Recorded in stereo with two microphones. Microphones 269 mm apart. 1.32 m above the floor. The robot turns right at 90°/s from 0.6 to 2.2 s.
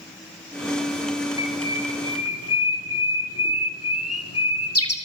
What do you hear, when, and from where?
1.4 s a bird: 10° right (ahead or behind), 3 m; by 4.9 s 60° left (ahead or behind), 3 m